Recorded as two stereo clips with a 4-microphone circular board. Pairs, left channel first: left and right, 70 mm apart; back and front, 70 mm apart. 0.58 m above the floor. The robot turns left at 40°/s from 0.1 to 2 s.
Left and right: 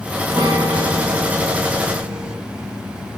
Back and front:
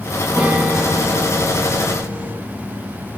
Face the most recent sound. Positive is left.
turn(degrees=-135)